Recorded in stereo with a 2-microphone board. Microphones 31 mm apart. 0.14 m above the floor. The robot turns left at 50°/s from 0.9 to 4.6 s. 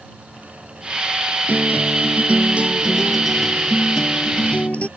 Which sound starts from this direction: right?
A guitar, at 1.5 s.